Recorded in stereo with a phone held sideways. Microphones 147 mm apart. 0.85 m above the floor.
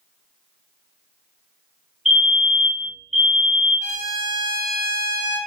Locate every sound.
2.0 s a fire alarm: centre (ahead or behind), 1.9 m
3.8 s a trumpet: 55° left (ahead or behind), 1.3 m